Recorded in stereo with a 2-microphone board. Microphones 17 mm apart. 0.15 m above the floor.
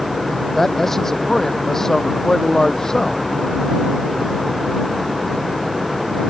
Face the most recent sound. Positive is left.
turn(degrees=30)  # may be behind; listen again after turning